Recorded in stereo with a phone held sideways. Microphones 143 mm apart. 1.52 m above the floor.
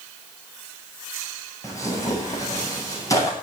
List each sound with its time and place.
1.6 s tearing paper: 20° left (ahead or behind), 10 m